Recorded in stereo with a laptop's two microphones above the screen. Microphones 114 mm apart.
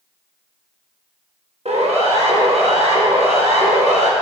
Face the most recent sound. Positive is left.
turn(degrees=-70)  # may be behind; listen again after turning